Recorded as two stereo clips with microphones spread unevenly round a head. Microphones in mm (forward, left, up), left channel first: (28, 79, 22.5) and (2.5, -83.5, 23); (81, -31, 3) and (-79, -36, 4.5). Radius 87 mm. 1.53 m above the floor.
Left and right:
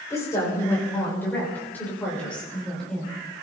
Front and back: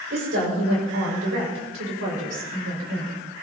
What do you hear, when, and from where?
0.1 s a woman speaking: 155° left, 6.5 m; by 3.2 s 170° left, 6 m